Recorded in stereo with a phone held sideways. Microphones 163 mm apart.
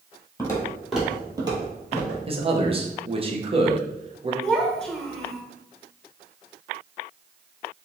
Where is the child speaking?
5° left (ahead or behind), 0.8 m.